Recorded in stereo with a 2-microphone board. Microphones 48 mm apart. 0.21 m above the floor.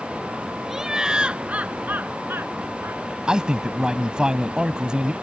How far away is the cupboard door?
I don't hear a cupboard door.